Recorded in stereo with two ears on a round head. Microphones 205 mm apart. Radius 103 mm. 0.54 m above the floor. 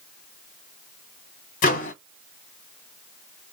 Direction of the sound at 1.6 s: 35° left (ahead or behind).